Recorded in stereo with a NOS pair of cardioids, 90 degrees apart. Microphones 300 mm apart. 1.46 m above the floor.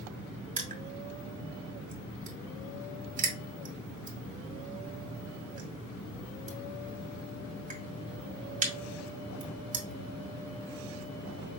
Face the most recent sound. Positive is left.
turn(degrees=-25)